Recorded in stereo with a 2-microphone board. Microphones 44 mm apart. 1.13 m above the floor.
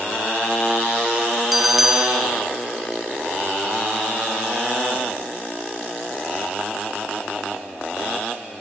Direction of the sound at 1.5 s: Centre (ahead or behind).